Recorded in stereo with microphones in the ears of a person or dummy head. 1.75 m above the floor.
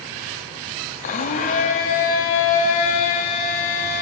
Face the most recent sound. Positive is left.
turn(degrees=45)  # may be behind; listen again after turning